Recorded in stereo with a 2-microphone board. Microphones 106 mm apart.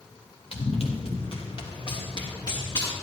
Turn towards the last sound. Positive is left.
turn(degrees=40)  # may be behind; listen again after turning